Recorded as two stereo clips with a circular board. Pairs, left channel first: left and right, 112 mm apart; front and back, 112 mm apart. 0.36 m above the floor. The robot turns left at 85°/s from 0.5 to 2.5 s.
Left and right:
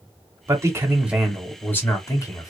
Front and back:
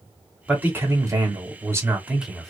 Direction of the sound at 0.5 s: 110° right.